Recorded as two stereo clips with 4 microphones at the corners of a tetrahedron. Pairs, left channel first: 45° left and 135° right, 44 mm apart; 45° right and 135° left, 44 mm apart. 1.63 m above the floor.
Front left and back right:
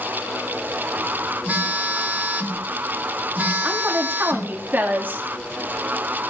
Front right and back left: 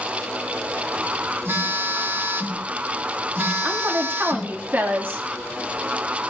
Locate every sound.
1.4 s a phone buzzing: 175° left, 3.5 m
3.6 s a woman speaking: straight behind, 3.5 m